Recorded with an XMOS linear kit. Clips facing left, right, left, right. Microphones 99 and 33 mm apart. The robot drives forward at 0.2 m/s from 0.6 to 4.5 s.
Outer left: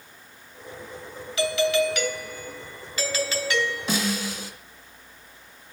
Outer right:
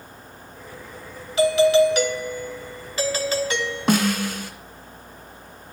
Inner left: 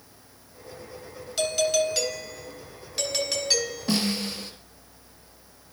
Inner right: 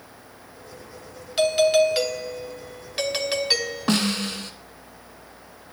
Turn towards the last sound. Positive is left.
turn(degrees=-55)  # may be behind; listen again after turning